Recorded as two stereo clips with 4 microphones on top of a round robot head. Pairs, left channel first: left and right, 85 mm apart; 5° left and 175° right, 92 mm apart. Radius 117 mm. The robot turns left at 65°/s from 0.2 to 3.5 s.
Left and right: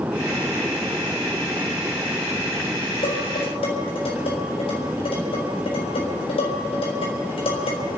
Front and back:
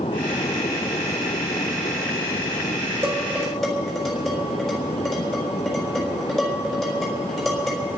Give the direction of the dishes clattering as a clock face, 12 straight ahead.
8 o'clock.